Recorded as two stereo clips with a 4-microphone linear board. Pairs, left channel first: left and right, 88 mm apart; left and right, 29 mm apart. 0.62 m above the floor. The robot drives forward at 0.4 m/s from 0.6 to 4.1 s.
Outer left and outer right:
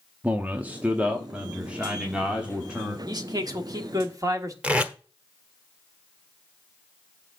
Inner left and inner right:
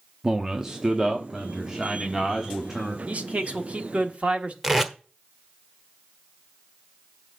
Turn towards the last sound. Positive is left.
turn(degrees=-15)  # may be behind; listen again after turning